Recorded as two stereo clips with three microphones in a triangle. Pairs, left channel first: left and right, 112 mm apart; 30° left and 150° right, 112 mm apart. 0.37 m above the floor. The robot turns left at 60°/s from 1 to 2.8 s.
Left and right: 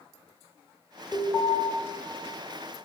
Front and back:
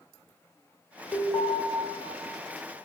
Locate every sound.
1.1 s an alarm: 5° left, 0.6 m; by 1.6 s 20° right, 0.6 m